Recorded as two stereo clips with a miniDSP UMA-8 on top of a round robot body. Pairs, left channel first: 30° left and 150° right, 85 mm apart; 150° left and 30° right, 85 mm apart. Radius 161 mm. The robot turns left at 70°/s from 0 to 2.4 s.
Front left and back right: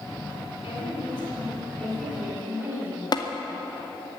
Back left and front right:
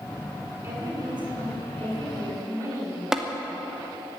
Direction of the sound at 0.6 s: 35° left.